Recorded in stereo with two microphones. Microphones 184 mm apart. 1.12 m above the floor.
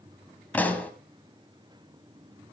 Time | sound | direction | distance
0.5 | a pop | 10° left (ahead or behind) | 1.7 m